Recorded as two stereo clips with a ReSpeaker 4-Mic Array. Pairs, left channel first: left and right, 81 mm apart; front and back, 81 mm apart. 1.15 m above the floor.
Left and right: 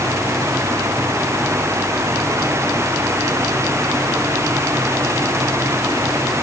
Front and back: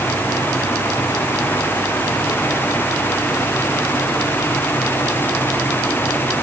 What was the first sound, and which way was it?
Only background noise.